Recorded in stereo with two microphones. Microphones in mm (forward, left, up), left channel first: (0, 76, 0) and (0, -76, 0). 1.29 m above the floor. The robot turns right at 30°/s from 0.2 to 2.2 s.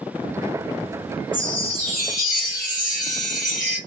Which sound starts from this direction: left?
A chime, at 1.3 s.